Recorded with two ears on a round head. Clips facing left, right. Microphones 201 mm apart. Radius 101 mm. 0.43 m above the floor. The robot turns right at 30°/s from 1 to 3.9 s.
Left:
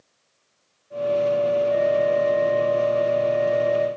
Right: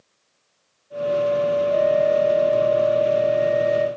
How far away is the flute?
About 7.5 m.